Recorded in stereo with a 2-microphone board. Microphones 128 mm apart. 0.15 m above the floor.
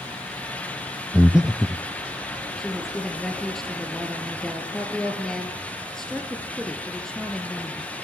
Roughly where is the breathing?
Centre.